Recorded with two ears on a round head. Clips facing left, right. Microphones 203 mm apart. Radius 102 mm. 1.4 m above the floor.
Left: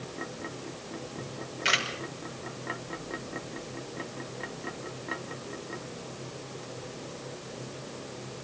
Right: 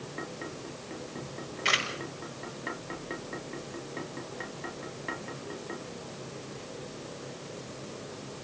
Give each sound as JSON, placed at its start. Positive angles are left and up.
{"t": 1.2, "sound": "a camera shutter", "side_deg": 10, "distance_m": 5.5}